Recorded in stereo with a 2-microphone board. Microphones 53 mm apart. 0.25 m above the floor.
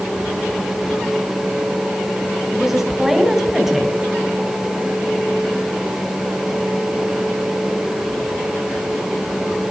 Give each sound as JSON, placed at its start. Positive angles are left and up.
{"t": 2.5, "sound": "a woman speaking", "side_deg": -5, "distance_m": 2.0}